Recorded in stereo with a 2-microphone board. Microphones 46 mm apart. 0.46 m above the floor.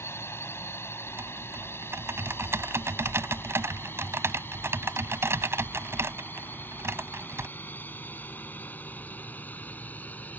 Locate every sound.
0.0 s a drone: 65° left (ahead or behind); by 10.4 s 40° left (ahead or behind)
1.1 s typing on a keyboard: 70° right (ahead or behind)